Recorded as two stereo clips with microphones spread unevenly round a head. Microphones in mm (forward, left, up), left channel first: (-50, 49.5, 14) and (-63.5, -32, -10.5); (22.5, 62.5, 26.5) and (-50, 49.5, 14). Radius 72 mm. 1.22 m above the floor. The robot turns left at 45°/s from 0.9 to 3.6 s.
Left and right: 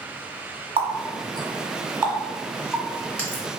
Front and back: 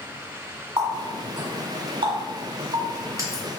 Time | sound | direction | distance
0.8 | a running tap | 110° right | 1.5 m